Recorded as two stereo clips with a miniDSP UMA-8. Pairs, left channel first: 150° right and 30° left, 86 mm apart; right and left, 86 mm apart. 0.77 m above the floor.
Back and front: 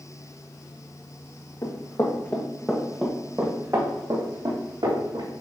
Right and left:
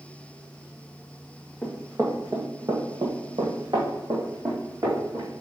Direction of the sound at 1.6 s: 165° left.